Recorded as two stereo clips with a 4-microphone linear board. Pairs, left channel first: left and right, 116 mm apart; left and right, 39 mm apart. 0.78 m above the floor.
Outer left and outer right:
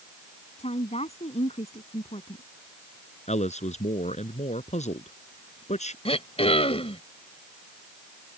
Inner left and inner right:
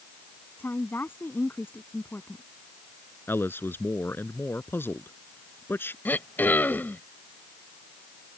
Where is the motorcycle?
No motorcycle in this recording.